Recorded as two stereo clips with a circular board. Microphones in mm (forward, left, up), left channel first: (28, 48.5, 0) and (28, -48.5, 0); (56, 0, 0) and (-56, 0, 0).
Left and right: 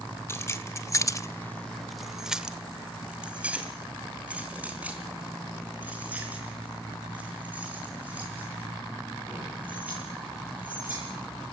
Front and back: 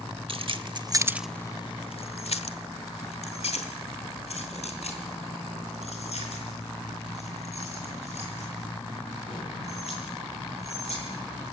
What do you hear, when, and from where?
0.3 s keys jangling: 150° left, 1.3 m; by 11.0 s 15° right, 11 m